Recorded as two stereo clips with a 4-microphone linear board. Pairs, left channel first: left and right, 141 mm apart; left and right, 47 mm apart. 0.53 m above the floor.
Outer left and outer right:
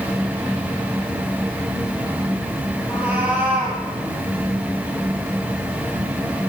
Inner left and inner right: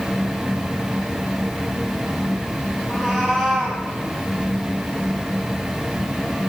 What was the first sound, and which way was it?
A cat meowing, 10° right (ahead or behind).